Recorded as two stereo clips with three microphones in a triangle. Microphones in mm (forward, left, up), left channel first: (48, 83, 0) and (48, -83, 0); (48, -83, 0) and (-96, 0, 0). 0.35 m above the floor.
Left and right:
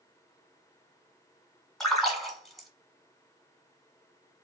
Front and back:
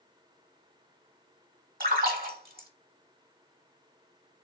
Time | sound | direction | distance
1.8 | a splash | straight behind | 0.7 m